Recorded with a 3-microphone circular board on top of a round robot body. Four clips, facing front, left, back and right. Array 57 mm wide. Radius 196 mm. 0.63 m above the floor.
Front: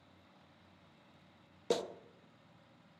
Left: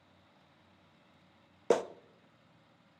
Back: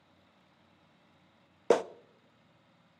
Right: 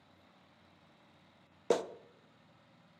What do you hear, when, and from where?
1.7 s a clap: 165° left, 0.8 m